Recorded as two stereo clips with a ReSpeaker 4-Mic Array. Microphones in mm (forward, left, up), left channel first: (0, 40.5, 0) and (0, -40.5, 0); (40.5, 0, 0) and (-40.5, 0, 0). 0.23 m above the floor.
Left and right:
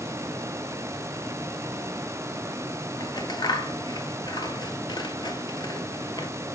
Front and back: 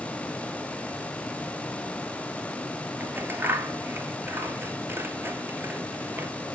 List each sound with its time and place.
3.0 s scissors: 115° left, 0.7 m